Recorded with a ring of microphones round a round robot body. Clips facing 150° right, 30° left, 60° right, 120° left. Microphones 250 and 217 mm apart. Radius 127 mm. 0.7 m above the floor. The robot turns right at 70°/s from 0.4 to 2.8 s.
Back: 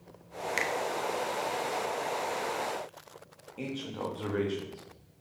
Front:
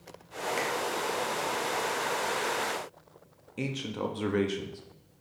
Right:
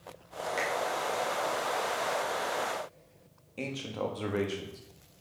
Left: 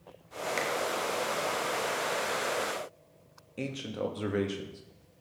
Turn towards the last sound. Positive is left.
turn(degrees=55)